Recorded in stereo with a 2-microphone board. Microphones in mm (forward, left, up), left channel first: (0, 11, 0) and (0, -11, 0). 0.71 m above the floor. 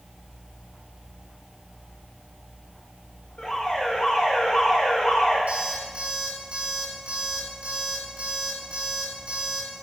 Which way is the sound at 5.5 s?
65° right (ahead or behind).